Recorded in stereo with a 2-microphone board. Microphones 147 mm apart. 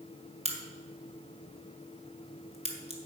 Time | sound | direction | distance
0.5 | a crack | 45° right (ahead or behind) | 1.8 m